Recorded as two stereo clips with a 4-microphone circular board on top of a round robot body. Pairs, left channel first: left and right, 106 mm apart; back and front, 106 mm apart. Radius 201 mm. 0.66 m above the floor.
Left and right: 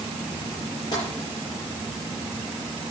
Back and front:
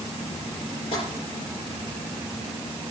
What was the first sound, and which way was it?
Tapping, 140° left.